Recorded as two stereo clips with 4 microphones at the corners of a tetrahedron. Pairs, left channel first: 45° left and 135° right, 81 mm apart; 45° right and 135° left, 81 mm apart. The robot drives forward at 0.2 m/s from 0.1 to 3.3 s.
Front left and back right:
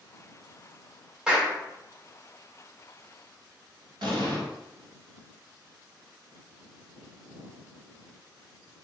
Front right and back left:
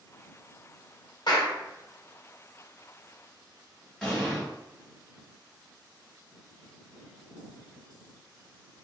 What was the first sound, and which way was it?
A clap, 55° right.